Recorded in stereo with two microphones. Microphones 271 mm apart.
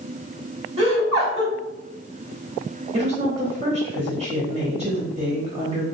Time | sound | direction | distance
0.8 | laughter | 20° right (ahead or behind) | 1.1 m
2.9 | a woman speaking | 25° right (ahead or behind) | 1.0 m